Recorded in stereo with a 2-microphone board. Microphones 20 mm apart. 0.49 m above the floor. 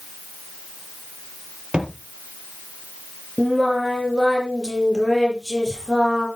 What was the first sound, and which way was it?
A thud, 55° right (ahead or behind).